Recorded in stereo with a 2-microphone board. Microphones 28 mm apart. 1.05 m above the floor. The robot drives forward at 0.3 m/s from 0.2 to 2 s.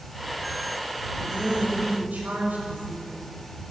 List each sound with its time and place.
1.2 s a woman speaking: 80° right, 6 m; by 3.2 s 85° right, 6 m